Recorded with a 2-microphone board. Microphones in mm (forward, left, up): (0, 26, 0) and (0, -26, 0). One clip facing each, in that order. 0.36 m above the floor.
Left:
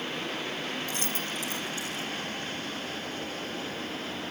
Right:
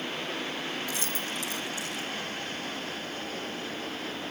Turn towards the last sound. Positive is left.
turn(degrees=30)  # may be behind; listen again after turning